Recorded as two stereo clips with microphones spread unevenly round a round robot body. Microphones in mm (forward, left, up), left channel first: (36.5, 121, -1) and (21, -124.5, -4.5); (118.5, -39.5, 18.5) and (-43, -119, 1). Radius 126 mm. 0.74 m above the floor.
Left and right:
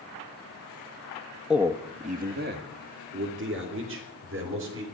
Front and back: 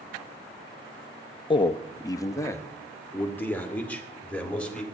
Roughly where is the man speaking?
Ahead.